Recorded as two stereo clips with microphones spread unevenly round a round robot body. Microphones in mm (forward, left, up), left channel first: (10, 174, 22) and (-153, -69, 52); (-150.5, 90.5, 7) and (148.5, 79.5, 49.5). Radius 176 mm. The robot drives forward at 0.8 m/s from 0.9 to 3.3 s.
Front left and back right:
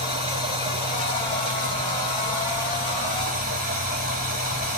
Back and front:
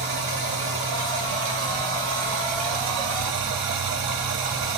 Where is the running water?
25° right, 3 m; by 4.8 s 60° right, 1.3 m.